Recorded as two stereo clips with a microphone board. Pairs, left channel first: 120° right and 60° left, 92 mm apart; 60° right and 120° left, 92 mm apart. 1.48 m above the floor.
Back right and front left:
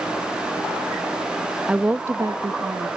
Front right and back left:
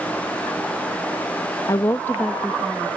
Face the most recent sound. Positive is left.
turn(degrees=45)